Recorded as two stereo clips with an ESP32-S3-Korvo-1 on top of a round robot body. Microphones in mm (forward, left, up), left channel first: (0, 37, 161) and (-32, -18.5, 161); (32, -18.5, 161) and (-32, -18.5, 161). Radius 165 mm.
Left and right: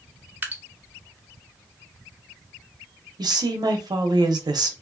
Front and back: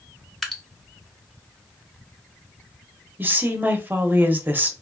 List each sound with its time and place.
0.4 s dripping: 85° right, 0.9 m
3.2 s a woman speaking: 115° right, 0.7 m